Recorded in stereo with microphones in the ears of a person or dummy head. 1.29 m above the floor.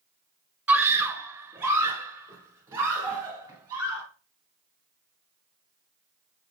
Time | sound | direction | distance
0.7 | a scream | 10° right (ahead or behind) | 1.0 m